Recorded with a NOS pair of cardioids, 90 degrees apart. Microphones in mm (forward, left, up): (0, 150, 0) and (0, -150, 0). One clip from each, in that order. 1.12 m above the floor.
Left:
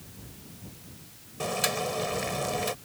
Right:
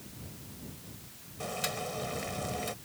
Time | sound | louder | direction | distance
1.4 | boiling | left 7 dB | 45° left | ?